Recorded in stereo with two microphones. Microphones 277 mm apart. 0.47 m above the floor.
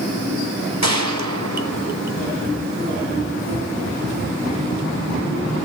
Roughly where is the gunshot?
Right.